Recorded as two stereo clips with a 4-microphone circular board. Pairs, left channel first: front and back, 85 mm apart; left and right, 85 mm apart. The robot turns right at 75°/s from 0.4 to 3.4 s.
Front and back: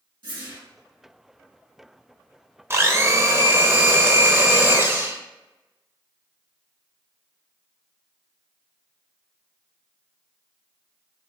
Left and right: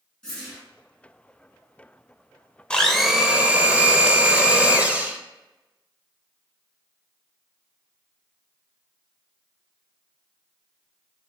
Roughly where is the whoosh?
Behind.